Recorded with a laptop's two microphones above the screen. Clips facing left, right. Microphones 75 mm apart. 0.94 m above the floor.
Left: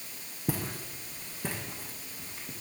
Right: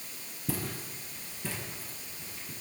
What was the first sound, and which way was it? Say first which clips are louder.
Footsteps: left 2 dB; 60° left (ahead or behind).